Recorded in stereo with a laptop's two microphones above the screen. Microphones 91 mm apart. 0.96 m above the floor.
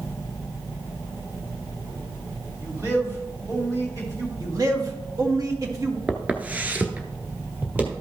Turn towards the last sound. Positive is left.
turn(degrees=-20)  # may be behind; listen again after turning